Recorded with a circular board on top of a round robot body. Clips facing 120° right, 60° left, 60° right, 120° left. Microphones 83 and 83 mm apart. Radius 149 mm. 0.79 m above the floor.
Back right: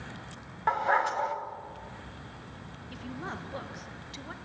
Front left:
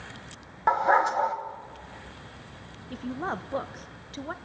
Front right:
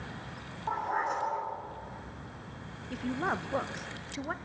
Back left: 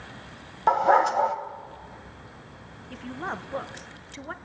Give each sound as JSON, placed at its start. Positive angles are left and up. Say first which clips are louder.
{"t": 0.7, "sound": "a dog barking", "louder": "front left 5 dB, back left 12 dB", "azimuth_deg": 130, "distance_m": 1.2}
{"t": 2.9, "sound": "a woman speaking", "louder": "front left 7 dB, front right 2 dB", "azimuth_deg": 20, "distance_m": 1.0}